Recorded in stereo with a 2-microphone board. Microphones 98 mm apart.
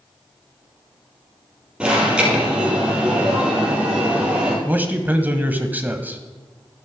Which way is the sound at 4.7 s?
20° right (ahead or behind).